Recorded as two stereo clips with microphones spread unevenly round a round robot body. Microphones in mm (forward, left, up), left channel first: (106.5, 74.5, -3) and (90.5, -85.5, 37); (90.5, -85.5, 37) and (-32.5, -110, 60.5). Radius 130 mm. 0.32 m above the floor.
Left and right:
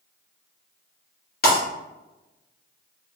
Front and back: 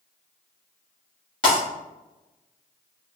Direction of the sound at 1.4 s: 70° left.